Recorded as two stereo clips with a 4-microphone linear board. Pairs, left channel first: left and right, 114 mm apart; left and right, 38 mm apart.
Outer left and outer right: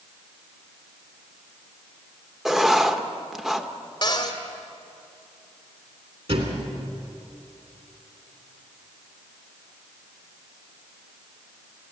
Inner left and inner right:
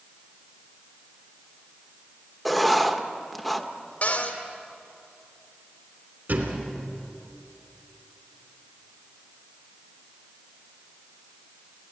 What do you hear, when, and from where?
2.5 s writing: 5° right (ahead or behind), 1.0 m
4.0 s a cupboard door: 45° left (ahead or behind), 2.0 m
6.3 s a thud: 60° right (ahead or behind), 2.5 m